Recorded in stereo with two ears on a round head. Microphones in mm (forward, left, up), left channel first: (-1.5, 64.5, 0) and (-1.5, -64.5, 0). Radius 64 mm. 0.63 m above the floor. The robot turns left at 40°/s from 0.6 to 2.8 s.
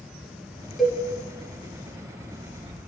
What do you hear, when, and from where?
0.8 s a cowbell: centre (ahead or behind), 1.0 m; by 1.0 s 5° right (ahead or behind), 1.0 m